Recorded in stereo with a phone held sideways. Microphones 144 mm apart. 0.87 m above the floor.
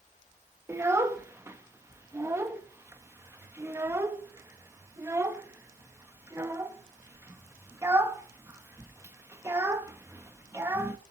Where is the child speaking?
20° right (ahead or behind), 0.8 m.